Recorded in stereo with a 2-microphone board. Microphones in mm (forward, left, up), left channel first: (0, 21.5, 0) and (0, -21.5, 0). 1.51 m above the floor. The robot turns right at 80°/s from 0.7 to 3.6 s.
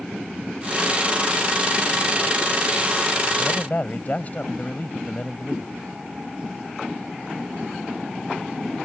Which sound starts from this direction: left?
A man speaking, at 3.4 s.